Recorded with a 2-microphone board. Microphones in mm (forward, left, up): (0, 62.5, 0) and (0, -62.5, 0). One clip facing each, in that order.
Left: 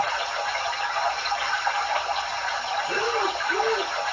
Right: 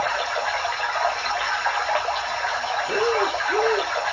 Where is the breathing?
35° right (ahead or behind), 1.0 m.